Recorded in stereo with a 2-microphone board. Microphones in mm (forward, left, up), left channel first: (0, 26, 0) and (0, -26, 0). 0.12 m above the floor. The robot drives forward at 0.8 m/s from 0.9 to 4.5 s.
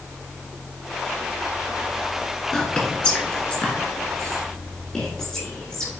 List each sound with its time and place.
2.5 s whispering: 15° left (ahead or behind), 1.8 m